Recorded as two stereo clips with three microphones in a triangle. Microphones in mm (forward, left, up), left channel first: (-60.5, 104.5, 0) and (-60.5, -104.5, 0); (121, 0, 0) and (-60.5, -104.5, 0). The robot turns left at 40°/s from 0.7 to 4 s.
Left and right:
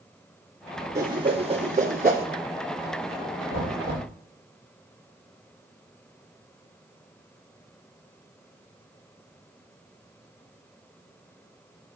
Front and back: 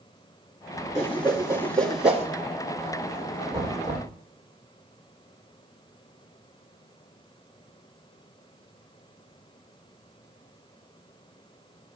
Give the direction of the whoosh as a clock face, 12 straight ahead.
1 o'clock.